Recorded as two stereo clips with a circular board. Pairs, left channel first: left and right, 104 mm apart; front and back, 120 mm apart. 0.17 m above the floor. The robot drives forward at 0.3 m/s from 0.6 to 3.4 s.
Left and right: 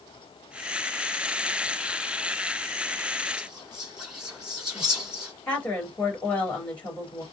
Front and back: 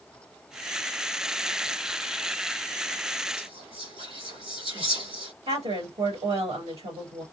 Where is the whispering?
170° right, 2.5 m.